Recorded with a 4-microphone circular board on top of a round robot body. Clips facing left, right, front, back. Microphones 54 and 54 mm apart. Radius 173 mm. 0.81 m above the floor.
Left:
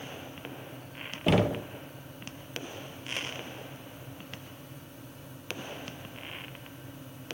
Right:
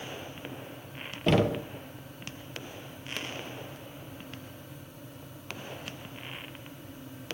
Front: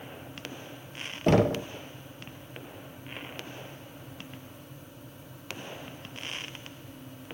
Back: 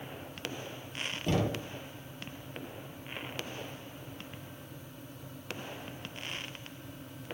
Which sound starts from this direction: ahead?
Knocking, at 1.3 s.